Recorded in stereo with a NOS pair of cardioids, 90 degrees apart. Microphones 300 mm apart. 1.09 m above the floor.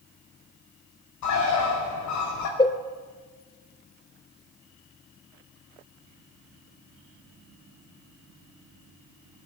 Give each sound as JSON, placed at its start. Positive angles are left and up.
{"t": 1.2, "sound": "a bird", "azimuth_deg": 70, "distance_m": 5.0}
{"t": 2.6, "sound": "a cowbell", "azimuth_deg": 15, "distance_m": 0.9}